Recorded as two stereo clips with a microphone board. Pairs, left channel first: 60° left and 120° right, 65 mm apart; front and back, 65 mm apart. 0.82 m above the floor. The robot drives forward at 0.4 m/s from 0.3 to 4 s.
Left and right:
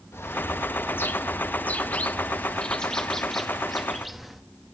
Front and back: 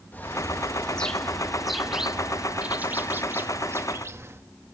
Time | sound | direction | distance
0.1 | a bird | 45° left | 1.1 m